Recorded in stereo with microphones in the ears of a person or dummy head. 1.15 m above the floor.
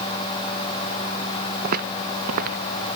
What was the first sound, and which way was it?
Footsteps, 55° right (ahead or behind).